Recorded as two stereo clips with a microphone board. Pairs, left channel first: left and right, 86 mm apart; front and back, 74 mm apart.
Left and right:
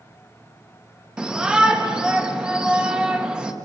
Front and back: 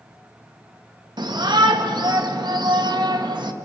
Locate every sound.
1.2 s a shout: 170° right, 2 m